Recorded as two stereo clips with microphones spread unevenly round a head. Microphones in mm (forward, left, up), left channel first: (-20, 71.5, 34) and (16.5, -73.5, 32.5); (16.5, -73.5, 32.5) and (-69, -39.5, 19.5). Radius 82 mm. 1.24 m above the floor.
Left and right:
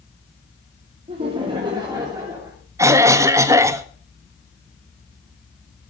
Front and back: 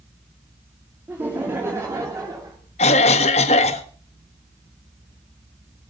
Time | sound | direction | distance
1.1 | laughter | 130° right | 2.5 m
2.8 | a cough | 5° right | 1.4 m